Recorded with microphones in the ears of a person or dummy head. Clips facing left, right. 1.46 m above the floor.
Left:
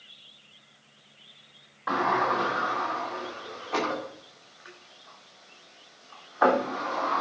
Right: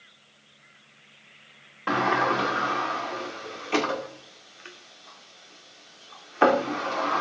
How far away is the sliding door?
About 2 m.